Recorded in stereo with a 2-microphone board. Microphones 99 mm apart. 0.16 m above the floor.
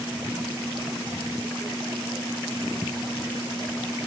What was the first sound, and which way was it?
Only background noise.